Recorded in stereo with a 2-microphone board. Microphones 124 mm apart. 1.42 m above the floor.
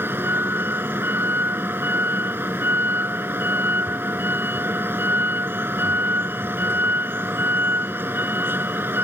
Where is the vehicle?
20° right (ahead or behind).